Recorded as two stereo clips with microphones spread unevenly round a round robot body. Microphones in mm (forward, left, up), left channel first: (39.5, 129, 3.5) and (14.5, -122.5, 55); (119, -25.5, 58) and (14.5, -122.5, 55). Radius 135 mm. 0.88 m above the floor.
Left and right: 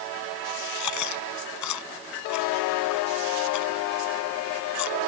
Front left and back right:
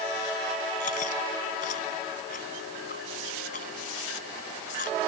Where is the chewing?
95° left.